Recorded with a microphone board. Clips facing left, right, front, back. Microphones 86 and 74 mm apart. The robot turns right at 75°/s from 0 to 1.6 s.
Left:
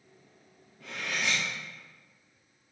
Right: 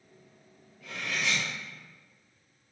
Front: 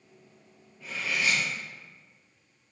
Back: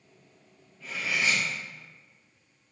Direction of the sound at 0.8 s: 85° left.